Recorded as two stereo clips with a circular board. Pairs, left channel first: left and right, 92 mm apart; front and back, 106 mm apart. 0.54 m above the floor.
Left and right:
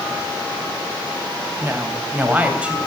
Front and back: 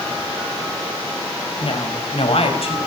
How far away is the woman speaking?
About 4 m.